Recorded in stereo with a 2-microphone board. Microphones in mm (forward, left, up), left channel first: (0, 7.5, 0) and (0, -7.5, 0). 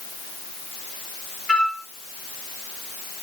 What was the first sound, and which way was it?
A flute, 45° left (ahead or behind).